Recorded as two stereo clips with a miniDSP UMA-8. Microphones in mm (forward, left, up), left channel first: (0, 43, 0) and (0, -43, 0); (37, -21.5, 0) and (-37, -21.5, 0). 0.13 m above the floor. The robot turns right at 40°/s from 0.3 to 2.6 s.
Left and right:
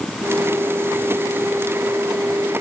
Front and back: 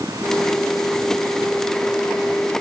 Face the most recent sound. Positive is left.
No sound to turn to.